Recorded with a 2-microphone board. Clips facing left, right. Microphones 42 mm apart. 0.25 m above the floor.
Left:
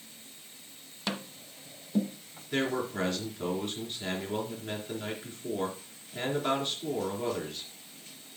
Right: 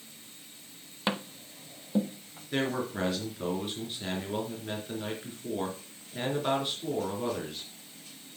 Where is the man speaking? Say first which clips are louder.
Even; 5° right (ahead or behind), 3.5 m.